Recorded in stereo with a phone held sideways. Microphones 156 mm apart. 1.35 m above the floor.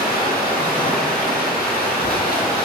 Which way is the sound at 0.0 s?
85° left.